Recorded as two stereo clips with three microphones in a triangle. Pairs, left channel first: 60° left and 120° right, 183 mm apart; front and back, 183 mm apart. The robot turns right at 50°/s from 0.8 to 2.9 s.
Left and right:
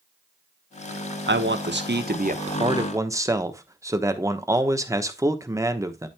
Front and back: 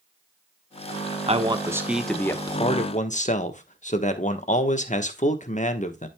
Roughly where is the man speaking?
Behind right.